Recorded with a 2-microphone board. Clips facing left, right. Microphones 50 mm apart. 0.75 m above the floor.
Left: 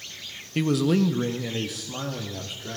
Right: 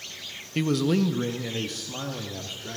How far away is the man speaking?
About 0.5 m.